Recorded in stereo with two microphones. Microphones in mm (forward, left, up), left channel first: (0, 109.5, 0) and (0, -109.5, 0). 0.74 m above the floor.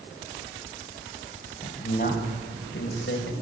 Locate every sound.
1.6 s a man speaking: 35° left (ahead or behind), 4 m; by 3.3 s 55° left (ahead or behind), 3.5 m